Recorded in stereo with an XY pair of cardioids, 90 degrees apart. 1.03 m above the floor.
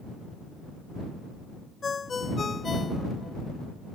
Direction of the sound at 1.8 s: 35° left.